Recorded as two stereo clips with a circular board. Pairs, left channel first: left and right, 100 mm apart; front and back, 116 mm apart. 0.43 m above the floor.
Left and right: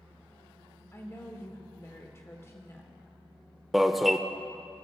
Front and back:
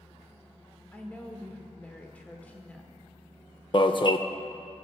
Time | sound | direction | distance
0.9 | a woman speaking | 60° left | 1.0 m
3.7 | an alarm | 5° right | 0.5 m